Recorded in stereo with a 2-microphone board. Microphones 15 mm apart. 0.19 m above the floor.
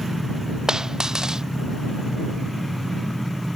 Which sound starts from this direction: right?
A dropped coin, at 0.7 s.